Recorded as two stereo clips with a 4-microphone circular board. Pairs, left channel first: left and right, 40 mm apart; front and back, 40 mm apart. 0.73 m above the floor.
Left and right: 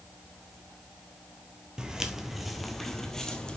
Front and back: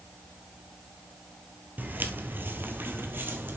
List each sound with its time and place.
1.8 s footsteps: 160° right, 1.1 m; by 3.6 s 160° left, 1.5 m